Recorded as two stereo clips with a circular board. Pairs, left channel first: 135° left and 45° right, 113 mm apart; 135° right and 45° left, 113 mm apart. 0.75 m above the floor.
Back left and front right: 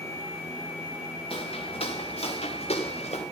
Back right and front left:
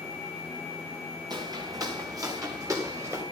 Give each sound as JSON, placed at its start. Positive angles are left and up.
{"t": 1.3, "sound": "footsteps", "azimuth_deg": 100, "distance_m": 3.5}